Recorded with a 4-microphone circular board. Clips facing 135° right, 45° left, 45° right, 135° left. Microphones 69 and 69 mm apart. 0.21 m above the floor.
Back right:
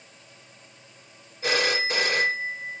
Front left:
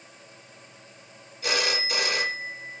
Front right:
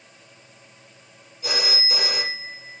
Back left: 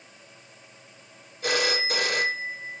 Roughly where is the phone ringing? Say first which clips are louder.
Back right 3 dB, back left 3 dB; behind.